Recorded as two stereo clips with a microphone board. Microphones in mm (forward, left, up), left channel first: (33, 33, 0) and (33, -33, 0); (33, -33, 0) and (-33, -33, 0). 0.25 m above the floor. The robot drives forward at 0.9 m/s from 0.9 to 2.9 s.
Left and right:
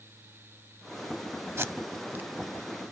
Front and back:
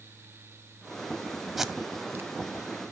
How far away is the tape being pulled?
About 0.8 m.